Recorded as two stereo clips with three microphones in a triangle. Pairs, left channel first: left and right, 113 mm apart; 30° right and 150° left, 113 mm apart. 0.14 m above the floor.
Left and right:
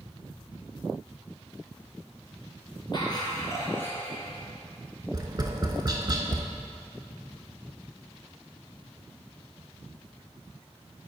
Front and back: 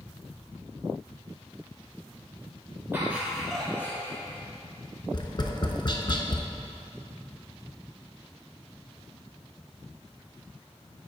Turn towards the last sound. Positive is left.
turn(degrees=-55)